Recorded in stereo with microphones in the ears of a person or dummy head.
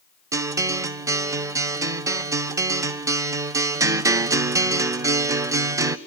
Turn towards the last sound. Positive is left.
turn(degrees=-15)  # may be behind; listen again after turning